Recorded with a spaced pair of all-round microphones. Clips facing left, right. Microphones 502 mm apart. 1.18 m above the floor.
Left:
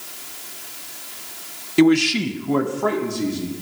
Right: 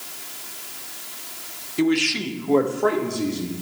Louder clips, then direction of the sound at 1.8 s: Left 6 dB; 75° left (ahead or behind).